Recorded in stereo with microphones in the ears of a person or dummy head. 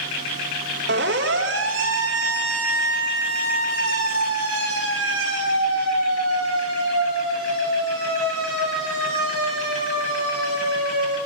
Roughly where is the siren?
Right.